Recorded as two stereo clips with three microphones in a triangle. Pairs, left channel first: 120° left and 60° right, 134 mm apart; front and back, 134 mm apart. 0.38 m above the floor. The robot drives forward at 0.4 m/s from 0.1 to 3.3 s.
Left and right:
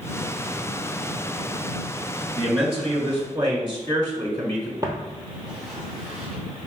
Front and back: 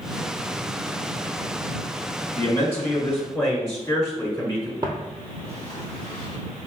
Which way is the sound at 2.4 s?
65° right.